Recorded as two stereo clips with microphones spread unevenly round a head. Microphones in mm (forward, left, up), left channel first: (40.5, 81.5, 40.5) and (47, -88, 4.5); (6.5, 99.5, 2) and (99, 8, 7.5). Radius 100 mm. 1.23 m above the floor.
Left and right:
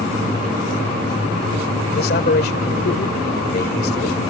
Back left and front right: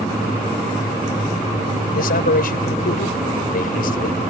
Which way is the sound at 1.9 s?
135° left.